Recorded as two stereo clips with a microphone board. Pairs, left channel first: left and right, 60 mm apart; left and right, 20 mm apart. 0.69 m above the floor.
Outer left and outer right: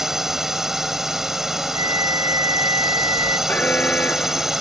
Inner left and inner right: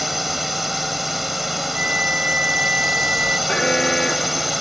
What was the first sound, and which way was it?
A drone, 5° right (ahead or behind).